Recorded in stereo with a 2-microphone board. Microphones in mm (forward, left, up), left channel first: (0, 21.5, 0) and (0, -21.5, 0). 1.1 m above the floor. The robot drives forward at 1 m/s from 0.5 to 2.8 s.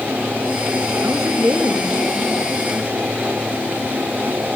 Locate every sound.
1.0 s a woman speaking: 70° right (ahead or behind), 1.8 m; by 3.1 s 40° right (ahead or behind), 2.5 m